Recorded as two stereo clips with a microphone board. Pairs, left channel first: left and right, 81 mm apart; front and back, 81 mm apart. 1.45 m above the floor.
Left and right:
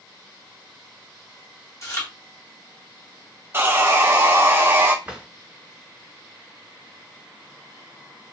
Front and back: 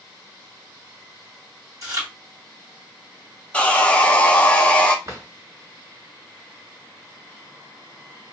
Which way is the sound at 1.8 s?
140° left.